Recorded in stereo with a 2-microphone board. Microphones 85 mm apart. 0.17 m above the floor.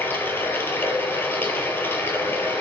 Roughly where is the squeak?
No squeak in this recording.